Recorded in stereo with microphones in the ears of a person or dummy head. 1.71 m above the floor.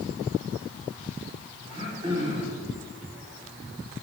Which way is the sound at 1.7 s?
15° right (ahead or behind).